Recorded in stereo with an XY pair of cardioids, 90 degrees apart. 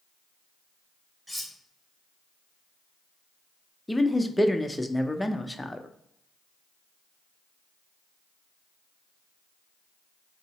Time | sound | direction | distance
1.3 | cutlery clinking | straight ahead | 1.1 m
3.9 | a man speaking | 10° left | 0.5 m